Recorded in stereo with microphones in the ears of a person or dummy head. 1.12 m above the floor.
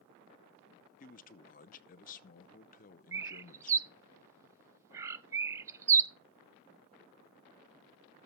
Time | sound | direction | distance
1.0 | a man speaking | 40° left (ahead or behind) | 0.7 m
3.1 | a bird | 15° right (ahead or behind) | 0.6 m